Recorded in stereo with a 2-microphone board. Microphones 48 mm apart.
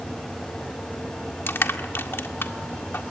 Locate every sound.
1.5 s crushing: 55° left (ahead or behind), 1.8 m